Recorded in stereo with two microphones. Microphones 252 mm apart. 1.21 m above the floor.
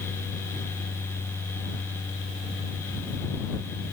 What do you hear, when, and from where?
Only background noise.